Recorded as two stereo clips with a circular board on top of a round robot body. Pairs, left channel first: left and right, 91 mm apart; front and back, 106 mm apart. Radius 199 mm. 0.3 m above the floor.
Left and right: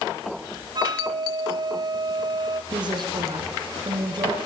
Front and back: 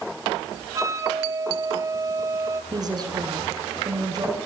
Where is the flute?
120° right, 2.5 m.